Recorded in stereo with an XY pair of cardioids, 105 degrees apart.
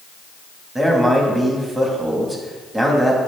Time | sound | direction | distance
0.8 | a man speaking | 15° right | 3 m